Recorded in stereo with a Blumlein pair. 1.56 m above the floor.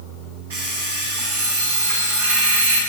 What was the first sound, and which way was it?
An alarm clock, 60° right.